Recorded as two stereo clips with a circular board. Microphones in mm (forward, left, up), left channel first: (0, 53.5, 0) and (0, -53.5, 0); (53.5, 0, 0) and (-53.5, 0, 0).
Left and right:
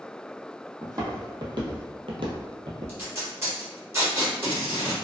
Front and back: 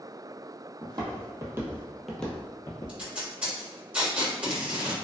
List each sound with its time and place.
0.8 s footsteps: 145° right, 0.9 m; by 3.0 s 50° right, 0.8 m
2.9 s tape being pulled: 115° right, 1.1 m